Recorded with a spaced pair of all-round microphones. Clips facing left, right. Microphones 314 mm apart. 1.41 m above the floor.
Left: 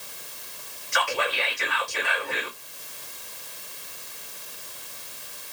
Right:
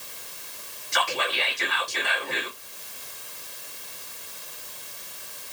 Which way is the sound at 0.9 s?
45° right (ahead or behind).